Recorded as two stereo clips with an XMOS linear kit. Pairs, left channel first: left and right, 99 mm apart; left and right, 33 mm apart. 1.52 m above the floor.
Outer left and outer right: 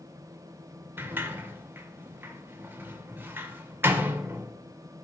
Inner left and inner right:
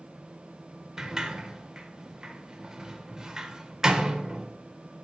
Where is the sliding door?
20° right (ahead or behind), 0.8 m.